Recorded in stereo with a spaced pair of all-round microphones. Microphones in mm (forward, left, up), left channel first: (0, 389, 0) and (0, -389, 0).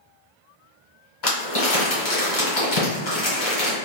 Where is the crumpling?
60° left (ahead or behind), 1.8 m.